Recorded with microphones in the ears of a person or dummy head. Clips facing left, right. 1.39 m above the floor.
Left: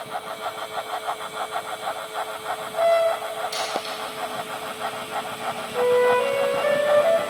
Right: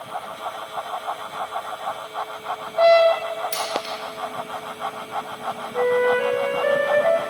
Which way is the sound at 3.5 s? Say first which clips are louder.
Right 1 dB; 65° right (ahead or behind).